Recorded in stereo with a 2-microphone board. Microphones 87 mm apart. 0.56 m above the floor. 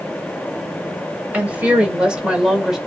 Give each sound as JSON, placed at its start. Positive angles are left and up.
{"t": 1.3, "sound": "a woman speaking", "side_deg": -15, "distance_m": 2.0}